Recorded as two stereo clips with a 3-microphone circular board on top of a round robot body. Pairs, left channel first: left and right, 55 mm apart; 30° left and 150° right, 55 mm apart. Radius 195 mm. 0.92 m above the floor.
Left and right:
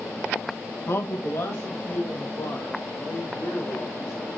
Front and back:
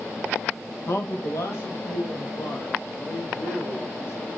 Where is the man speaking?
60° left, 1.5 m.